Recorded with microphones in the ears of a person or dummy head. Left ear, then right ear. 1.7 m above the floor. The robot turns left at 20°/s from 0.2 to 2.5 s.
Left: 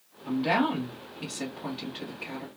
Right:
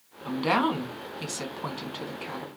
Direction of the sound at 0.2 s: 65° right.